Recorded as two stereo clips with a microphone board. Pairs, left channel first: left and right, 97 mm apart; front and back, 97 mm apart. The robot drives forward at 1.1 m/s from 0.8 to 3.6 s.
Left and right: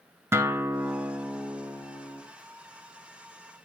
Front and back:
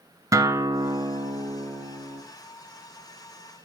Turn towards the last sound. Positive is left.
turn(degrees=-175)